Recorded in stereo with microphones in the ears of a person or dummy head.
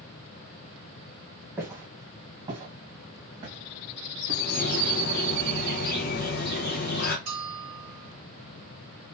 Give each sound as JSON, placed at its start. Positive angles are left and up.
{"t": 1.6, "sound": "footsteps", "side_deg": -10, "distance_m": 1.8}
{"t": 4.3, "sound": "a bird", "side_deg": 55, "distance_m": 0.7}
{"t": 7.3, "sound": "a bell", "side_deg": -60, "distance_m": 3.0}